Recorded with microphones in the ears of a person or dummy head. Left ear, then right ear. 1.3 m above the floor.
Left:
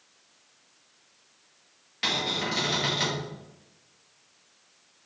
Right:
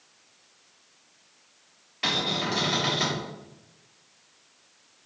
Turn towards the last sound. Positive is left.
turn(degrees=25)  # may be behind; listen again after turning